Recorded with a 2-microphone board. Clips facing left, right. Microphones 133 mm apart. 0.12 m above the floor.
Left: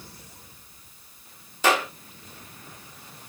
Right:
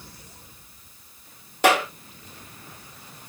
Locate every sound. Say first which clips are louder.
1.6 s a clap: right 3 dB; 65° right (ahead or behind), 4 m